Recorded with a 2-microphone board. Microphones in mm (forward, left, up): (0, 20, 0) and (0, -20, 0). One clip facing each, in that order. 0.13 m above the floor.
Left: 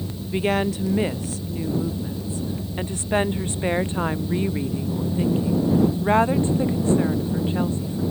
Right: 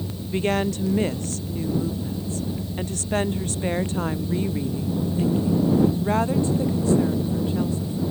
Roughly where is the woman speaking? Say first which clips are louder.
Left 1 dB; centre.